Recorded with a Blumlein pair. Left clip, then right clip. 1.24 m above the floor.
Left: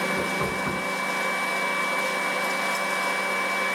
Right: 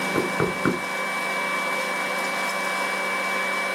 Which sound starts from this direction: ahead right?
Knocking, at 0.1 s.